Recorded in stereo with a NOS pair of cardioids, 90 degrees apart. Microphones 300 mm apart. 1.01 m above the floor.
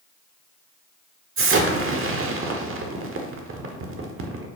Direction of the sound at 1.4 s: 45° right.